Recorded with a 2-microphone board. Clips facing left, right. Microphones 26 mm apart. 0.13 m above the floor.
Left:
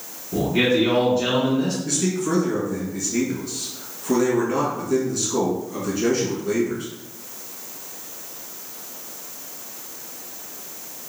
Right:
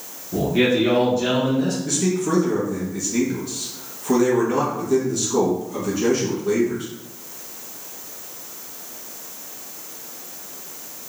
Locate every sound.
0.3 s a man speaking: 15° left (ahead or behind), 1.1 m
1.9 s a man speaking: 5° left (ahead or behind), 1.2 m